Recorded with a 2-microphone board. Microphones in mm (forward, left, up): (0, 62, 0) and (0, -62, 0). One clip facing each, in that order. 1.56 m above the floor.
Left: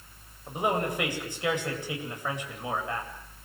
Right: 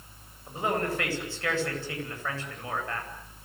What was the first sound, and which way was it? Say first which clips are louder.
A man speaking: left 1 dB; 15° left (ahead or behind).